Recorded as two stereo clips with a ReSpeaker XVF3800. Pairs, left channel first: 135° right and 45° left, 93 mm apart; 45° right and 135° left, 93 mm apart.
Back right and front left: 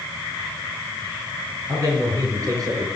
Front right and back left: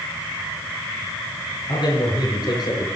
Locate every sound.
1.7 s a man speaking: 5° right, 6 m